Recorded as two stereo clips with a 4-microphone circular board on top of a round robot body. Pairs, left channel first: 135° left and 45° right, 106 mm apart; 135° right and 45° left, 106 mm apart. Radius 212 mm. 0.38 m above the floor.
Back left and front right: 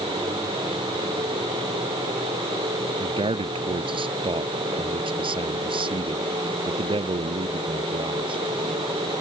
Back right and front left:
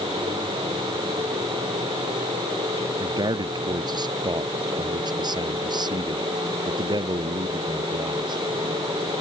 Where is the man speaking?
5° right.